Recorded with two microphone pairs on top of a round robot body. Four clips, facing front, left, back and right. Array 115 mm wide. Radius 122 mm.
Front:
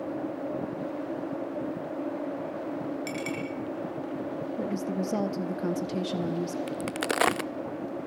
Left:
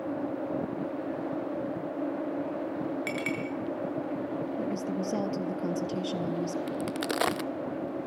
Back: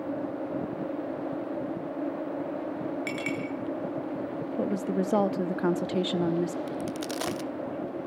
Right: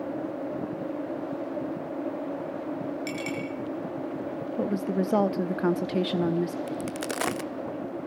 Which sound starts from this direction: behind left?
A clink, at 3.1 s.